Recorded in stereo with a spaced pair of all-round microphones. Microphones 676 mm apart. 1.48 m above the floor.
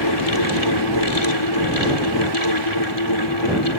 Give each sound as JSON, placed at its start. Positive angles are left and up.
{"t": 0.0, "sound": "a fan", "side_deg": 35}